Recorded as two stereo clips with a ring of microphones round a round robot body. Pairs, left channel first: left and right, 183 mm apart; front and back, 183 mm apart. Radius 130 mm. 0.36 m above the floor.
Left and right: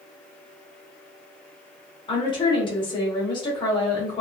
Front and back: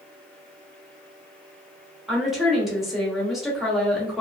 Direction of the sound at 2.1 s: 90° left.